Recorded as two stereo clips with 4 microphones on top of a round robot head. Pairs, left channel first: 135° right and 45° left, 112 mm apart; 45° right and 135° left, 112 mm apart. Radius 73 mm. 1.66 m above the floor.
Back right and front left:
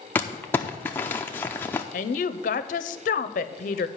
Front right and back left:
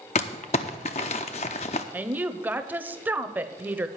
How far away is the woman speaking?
About 0.7 m.